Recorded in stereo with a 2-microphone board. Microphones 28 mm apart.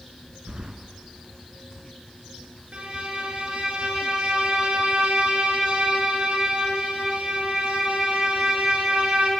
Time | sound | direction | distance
0.5 | keys jangling | 35° right (ahead or behind) | 1.1 m
2.7 | a violin | 45° right (ahead or behind) | 2.5 m